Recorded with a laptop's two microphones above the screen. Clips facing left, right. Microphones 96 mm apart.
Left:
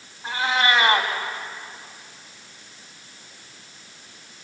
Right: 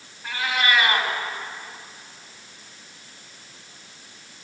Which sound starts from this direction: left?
A cat meowing, at 0.2 s.